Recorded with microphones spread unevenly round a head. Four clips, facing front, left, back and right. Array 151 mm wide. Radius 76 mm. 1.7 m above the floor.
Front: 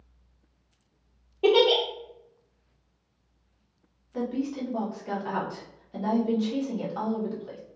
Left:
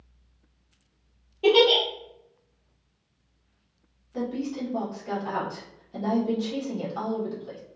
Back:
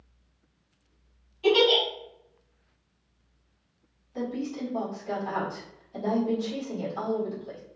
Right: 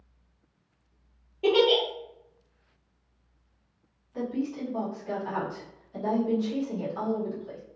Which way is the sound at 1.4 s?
5° right.